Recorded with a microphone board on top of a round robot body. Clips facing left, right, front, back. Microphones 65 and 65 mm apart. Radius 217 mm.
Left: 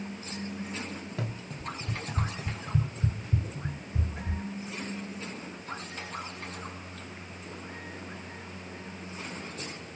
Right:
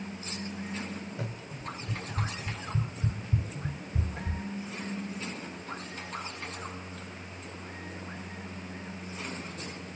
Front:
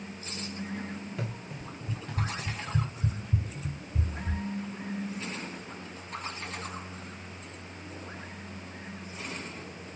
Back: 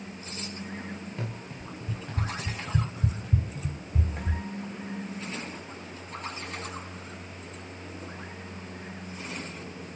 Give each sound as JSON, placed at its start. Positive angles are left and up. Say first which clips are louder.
{"t": 1.2, "sound": "running footsteps", "louder": "left 2 dB, even", "azimuth_deg": 80, "distance_m": 1.4}